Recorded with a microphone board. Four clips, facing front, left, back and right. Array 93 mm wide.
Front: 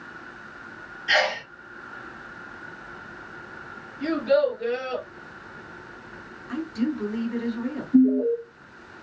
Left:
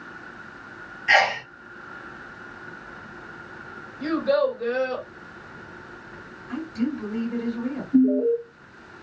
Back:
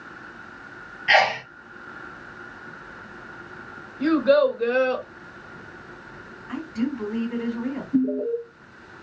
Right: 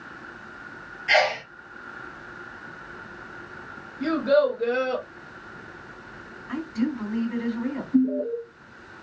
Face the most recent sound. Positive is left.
turn(degrees=125)